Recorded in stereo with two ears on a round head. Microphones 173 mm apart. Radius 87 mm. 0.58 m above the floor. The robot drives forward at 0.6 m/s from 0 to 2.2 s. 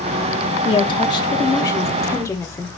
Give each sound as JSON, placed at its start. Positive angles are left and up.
{"t": 0.7, "sound": "a woman speaking", "side_deg": 25, "distance_m": 0.9}